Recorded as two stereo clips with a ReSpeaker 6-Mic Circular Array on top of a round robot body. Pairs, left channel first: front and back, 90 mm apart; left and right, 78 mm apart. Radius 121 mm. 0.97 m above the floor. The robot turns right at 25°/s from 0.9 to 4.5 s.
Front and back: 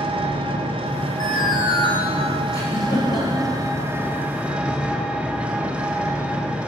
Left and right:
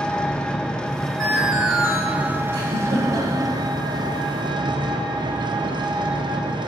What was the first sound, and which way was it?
An engine running, 170° left.